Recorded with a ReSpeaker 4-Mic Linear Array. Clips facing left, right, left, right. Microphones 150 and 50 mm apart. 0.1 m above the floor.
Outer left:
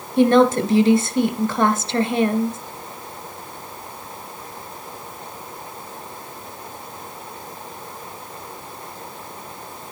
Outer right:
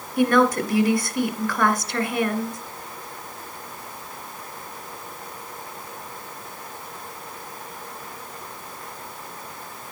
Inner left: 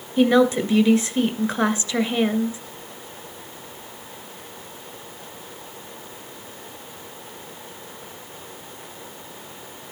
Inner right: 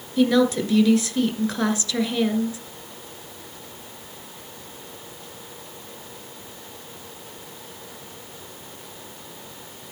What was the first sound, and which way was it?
A woman speaking, 25° left (ahead or behind).